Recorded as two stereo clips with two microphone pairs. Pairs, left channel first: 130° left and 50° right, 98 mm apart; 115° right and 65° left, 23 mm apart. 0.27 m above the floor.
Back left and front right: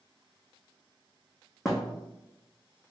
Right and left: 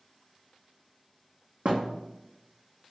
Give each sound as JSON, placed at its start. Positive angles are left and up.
{"t": 1.6, "sound": "a thud", "azimuth_deg": 40, "distance_m": 0.7}